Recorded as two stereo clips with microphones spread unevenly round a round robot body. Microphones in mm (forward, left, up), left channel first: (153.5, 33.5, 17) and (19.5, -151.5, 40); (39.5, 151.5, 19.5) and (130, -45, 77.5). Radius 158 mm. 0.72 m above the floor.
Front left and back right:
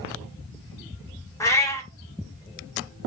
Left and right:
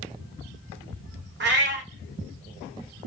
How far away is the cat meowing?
About 0.8 m.